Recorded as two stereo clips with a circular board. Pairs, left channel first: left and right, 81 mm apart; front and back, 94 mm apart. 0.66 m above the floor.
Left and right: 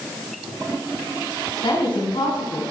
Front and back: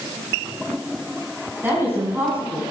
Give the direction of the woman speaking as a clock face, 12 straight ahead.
8 o'clock.